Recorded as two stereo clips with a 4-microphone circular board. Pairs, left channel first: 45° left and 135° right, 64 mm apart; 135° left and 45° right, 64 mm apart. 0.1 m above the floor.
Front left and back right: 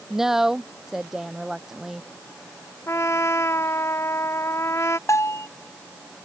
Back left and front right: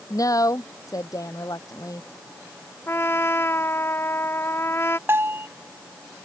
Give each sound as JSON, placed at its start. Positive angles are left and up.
{"t": 0.1, "sound": "a woman speaking", "azimuth_deg": 145}
{"t": 2.9, "sound": "a trumpet", "azimuth_deg": 90}
{"t": 5.1, "sound": "a bell", "azimuth_deg": 5}